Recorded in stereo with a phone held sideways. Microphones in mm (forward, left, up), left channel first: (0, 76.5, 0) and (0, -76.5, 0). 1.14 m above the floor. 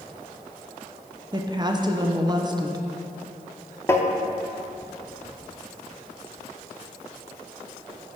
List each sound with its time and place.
1.3 s a woman speaking: 30° right (ahead or behind), 0.7 m
3.9 s tapping: 15° left (ahead or behind), 0.7 m